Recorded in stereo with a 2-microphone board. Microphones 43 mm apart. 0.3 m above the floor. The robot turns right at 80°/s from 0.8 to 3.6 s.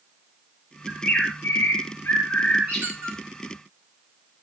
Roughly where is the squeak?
Right.